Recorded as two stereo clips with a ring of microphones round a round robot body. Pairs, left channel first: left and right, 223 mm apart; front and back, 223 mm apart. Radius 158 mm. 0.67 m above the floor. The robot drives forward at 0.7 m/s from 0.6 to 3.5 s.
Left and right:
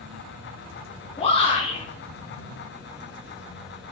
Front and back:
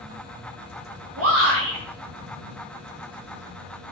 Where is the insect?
125° right, 2.5 m; by 3.9 s 150° right, 4 m.